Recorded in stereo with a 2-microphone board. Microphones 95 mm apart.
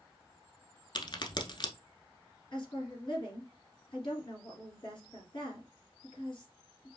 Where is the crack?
50° left (ahead or behind), 0.9 m.